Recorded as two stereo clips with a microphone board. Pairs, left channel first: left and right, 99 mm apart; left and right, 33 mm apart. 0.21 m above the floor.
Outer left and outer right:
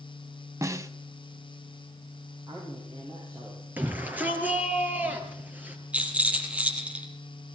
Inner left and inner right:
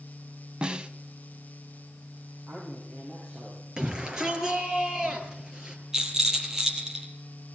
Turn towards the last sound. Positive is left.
turn(degrees=-15)  # may be behind; listen again after turning